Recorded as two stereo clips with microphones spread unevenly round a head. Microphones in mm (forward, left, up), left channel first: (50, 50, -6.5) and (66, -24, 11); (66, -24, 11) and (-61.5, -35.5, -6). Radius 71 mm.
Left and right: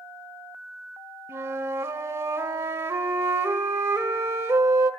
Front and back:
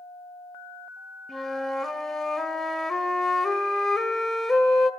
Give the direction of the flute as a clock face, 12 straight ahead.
2 o'clock.